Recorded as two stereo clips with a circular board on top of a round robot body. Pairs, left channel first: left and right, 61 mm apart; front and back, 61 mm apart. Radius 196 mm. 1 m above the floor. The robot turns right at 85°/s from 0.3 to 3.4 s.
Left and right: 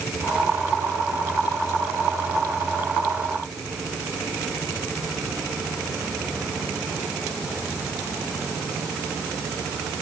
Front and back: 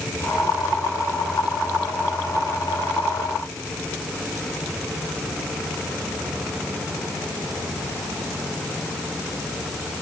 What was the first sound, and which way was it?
Only background noise.